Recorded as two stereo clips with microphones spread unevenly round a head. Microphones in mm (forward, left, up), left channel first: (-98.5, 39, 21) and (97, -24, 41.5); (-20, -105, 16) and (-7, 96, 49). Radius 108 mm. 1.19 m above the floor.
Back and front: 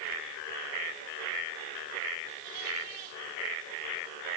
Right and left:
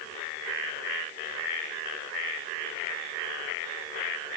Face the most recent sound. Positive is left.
No sound to turn to.